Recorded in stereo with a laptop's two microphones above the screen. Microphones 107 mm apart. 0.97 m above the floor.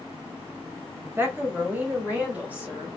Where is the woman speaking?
20° right (ahead or behind), 0.7 m; by 2.9 s 15° right (ahead or behind), 1.6 m.